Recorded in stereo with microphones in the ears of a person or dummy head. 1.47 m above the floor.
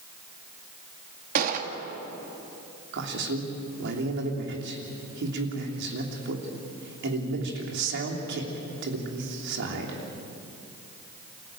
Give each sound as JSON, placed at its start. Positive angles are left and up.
{"t": 1.4, "sound": "a gunshot", "side_deg": -45, "distance_m": 2.5}
{"t": 2.9, "sound": "a man speaking", "side_deg": -70, "distance_m": 3.0}